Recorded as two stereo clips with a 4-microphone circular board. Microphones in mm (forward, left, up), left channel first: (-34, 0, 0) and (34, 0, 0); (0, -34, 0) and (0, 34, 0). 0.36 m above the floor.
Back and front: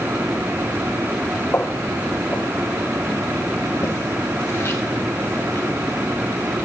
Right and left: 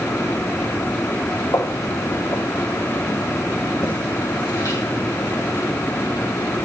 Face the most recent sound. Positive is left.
turn(degrees=-125)